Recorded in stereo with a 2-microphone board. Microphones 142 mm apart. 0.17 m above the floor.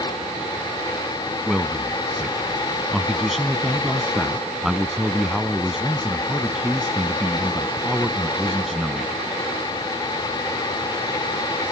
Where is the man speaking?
Centre (ahead or behind).